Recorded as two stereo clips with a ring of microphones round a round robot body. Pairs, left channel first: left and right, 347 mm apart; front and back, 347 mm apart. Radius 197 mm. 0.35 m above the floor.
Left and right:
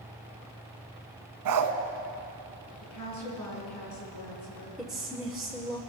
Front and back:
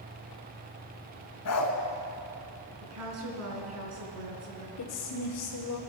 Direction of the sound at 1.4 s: 55° right.